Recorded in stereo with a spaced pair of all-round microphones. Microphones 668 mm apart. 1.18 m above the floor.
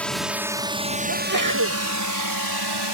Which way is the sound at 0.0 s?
Centre (ahead or behind).